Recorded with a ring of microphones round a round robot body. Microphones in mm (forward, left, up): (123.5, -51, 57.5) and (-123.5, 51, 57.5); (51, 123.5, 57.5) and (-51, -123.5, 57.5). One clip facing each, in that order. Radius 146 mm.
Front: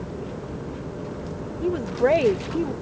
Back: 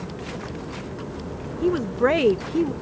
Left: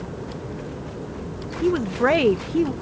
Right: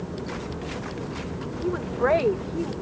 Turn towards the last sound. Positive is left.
turn(degrees=95)